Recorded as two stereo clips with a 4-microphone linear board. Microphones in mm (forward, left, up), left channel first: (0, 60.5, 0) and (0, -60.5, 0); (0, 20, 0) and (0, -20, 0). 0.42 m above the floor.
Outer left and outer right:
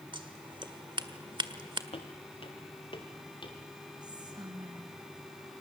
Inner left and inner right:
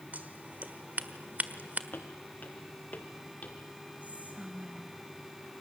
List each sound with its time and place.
0.1 s scissors: 40° right (ahead or behind), 1.4 m
1.9 s footsteps: 50° left (ahead or behind), 4.5 m; by 3.6 s 40° left (ahead or behind), 6 m
4.0 s whispering: 35° right (ahead or behind), 3 m